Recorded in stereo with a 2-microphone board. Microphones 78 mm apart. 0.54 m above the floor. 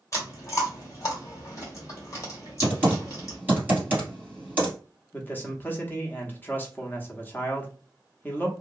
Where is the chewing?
40° left (ahead or behind), 1.5 m.